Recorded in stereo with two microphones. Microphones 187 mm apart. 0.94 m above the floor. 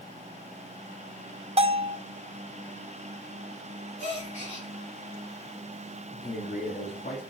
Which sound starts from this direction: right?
A bell, at 1.6 s.